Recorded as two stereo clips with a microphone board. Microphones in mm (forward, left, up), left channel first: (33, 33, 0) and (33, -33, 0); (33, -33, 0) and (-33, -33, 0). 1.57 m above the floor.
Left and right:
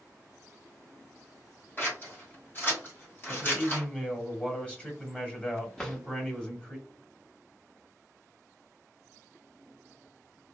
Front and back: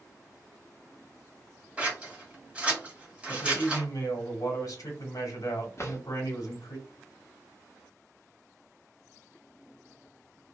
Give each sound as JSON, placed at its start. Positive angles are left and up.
{"t": 1.8, "sound": "scissors", "azimuth_deg": 120, "distance_m": 1.5}
{"t": 3.3, "sound": "a man speaking", "azimuth_deg": 15, "distance_m": 1.0}
{"t": 5.8, "sound": "a drawer", "azimuth_deg": 15, "distance_m": 0.9}